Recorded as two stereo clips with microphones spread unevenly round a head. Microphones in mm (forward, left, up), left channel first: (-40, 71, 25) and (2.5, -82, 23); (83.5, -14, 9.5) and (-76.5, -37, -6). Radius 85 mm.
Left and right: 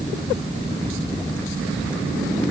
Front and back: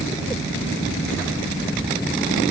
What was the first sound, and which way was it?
Only background noise.